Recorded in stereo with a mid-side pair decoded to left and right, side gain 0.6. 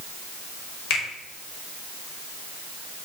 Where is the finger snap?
65° left, 5.5 m.